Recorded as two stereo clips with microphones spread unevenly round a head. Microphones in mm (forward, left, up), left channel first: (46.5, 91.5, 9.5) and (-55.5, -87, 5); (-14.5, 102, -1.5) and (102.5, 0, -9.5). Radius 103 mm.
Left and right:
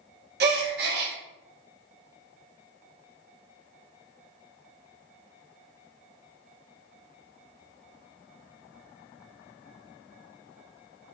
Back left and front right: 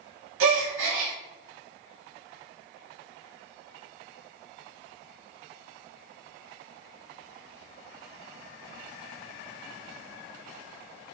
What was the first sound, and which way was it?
A gasp, 70° right.